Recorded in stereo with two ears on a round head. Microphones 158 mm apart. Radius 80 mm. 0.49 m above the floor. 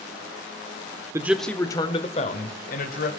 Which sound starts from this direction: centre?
A man speaking, at 1.1 s.